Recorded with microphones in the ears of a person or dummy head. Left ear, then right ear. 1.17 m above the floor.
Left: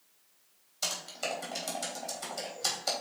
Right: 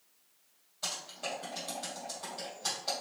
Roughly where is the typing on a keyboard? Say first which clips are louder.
Left 3 dB; left.